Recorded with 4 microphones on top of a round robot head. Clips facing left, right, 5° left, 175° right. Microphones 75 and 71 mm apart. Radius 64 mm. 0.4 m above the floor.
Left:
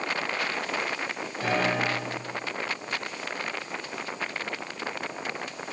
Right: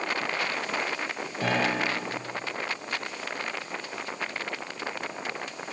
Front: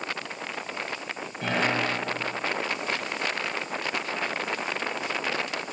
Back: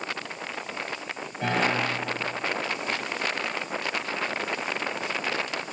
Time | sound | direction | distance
1.4 | a piano | 90° right | 8 m